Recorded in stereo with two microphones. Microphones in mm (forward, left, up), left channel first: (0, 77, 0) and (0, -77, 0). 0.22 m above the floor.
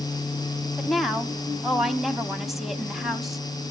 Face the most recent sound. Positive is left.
turn(degrees=0)  # may be behind; listen again after turning